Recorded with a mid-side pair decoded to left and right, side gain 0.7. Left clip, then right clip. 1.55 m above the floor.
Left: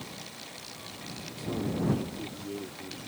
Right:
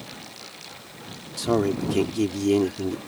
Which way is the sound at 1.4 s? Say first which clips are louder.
Right 11 dB; 60° right.